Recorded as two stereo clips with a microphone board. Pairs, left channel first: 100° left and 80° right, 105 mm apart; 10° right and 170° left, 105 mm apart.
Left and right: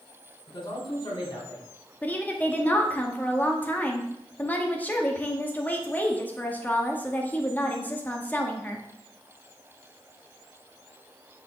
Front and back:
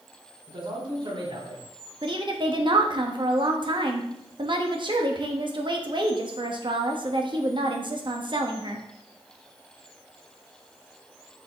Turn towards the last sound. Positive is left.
turn(degrees=165)